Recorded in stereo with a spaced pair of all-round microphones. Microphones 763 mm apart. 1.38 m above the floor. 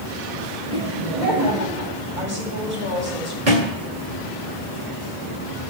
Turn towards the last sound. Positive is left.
turn(degrees=-75)  # may be behind; listen again after turning